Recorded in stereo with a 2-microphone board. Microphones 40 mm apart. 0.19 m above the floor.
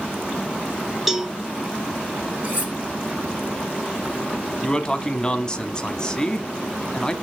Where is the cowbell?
5° right (ahead or behind), 0.9 m.